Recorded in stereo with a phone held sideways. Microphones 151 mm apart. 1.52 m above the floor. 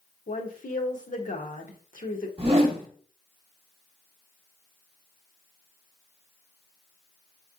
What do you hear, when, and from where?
0.3 s a woman speaking: 60° left (ahead or behind), 0.8 m
2.4 s a whoosh: 40° right (ahead or behind), 1.3 m